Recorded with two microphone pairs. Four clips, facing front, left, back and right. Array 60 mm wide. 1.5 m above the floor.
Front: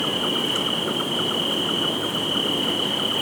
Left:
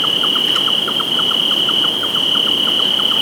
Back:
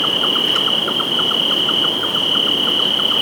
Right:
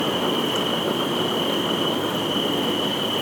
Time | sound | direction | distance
0.0 | an insect | 135° left | 1.0 m